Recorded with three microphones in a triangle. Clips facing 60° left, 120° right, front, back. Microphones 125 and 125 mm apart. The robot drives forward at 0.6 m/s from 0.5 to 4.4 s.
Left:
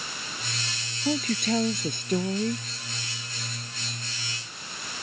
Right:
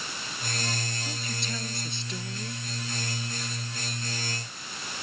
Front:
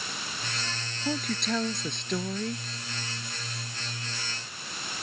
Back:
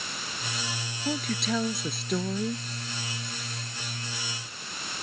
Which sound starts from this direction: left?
A woman speaking, at 1.1 s.